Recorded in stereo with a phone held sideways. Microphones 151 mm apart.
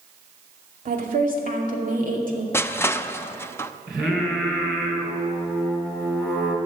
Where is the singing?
5° right (ahead or behind), 3.5 m.